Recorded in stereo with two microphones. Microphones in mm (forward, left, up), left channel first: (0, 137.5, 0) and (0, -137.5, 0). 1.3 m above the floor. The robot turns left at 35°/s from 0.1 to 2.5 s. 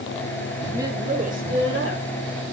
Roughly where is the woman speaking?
Ahead.